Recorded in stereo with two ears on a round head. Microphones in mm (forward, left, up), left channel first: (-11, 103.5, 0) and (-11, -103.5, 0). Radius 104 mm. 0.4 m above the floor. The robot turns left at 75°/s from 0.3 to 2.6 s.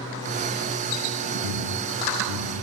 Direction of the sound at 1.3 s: 50° right (ahead or behind).